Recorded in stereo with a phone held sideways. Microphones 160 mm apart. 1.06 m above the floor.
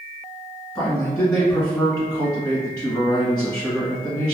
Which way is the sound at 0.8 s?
25° left (ahead or behind).